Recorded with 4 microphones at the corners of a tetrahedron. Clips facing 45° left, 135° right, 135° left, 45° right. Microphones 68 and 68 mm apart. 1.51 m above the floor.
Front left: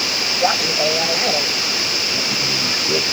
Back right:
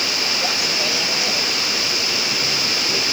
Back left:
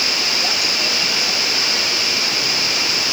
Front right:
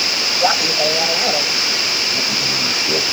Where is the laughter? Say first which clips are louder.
Front left 10 dB, front right 6 dB; 5° right.